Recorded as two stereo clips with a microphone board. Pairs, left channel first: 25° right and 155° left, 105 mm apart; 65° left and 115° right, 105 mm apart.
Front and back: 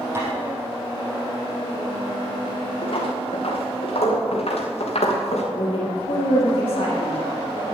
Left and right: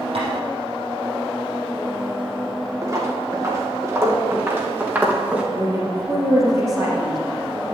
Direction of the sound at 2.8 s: 55° right.